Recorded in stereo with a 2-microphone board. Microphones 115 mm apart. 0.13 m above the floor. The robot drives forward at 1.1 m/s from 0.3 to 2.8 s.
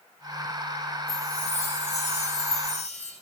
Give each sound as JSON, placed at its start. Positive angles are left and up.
{"t": 1.1, "sound": "a chime", "side_deg": 75, "distance_m": 6.0}